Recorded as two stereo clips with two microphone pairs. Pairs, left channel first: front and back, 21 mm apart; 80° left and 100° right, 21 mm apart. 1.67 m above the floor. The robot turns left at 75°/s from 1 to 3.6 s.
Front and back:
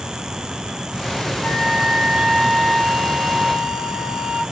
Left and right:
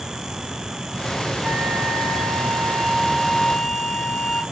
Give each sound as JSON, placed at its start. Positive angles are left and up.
{"t": 1.4, "sound": "a flute", "azimuth_deg": -60, "distance_m": 1.1}